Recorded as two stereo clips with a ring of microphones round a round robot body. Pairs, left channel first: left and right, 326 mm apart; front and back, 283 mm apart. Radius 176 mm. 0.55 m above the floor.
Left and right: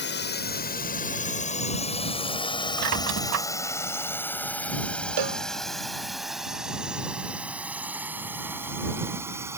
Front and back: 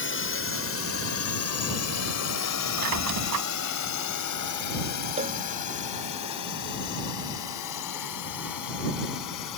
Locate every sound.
0.0 s a drone: 35° left; by 9.6 s 10° right
2.8 s a squeak: 135° right
5.2 s a cowbell: 110° right